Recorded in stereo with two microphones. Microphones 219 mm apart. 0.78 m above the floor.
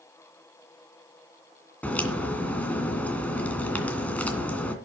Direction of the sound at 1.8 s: 5° left (ahead or behind).